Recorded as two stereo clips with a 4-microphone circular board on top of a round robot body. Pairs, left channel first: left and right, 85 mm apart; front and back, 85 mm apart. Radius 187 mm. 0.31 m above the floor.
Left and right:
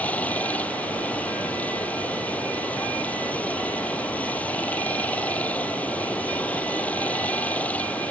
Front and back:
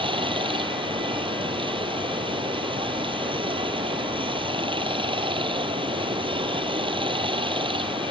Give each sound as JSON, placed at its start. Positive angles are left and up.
{"t": 0.0, "sound": "running water", "azimuth_deg": 165}